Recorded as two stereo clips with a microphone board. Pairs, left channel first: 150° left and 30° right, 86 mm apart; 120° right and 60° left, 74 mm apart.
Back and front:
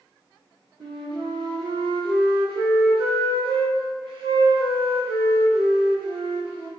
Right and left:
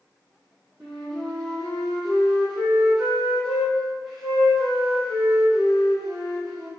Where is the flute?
30° right, 1.9 m.